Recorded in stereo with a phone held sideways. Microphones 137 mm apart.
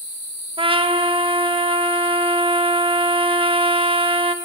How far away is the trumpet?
About 0.8 m.